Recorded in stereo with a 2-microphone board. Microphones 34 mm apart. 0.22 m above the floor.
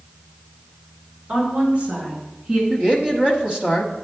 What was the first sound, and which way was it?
A woman speaking, 50° right (ahead or behind).